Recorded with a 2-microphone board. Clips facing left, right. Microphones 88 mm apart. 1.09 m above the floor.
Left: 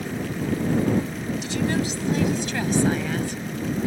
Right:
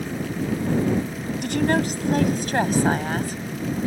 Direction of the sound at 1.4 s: 55° right (ahead or behind).